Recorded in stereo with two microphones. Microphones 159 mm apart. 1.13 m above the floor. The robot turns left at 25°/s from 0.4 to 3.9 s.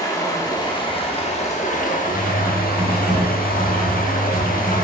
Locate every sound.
0.0 s running water: 155° left, 1.1 m; by 4.8 s 70° left, 1.1 m
2.0 s typing on a keyboard: 150° right, 3 m; by 4.8 s 165° left, 3 m